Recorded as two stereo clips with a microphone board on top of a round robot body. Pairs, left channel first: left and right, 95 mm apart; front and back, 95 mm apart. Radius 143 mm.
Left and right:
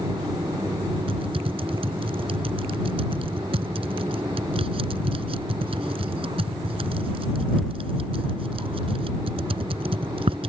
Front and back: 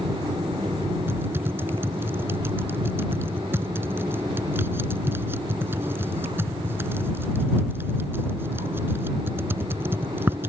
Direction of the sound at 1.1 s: 115° right.